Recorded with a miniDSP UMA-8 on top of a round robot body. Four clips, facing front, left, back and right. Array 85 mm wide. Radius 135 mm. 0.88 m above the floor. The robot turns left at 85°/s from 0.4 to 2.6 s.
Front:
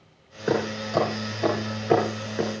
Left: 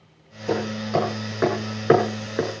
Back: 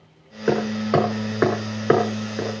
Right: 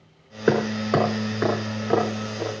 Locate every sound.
0.5 s hammering: 100° right, 6.5 m; by 2.5 s 85° left, 6.5 m